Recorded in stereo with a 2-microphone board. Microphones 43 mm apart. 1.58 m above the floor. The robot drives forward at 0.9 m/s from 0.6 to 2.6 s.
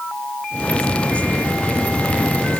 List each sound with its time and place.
Only background noise.